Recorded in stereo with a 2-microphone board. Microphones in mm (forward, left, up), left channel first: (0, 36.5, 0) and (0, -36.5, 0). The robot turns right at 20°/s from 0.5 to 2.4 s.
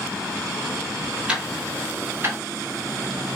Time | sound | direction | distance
1.3 | ticking | 15° right (ahead or behind) | 1.1 m